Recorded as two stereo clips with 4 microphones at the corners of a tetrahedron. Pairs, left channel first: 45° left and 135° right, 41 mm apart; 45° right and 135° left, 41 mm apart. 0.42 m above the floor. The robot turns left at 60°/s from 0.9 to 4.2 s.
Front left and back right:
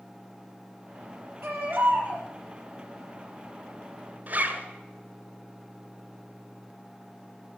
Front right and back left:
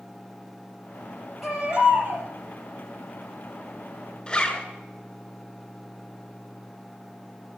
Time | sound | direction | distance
1.4 | a baby crying | 140° right | 5 m
4.3 | a zipper | 100° right | 2 m